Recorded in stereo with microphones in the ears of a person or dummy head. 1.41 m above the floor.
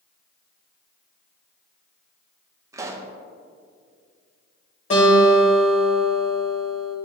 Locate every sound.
2.7 s a pop: 15° right (ahead or behind), 0.6 m
4.9 s a guitar: 45° left (ahead or behind), 2 m